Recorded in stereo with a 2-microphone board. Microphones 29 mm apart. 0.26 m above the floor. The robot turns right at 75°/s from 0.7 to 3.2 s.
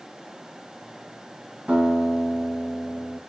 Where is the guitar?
40° right, 1.3 m; by 3.2 s 70° left, 1.3 m.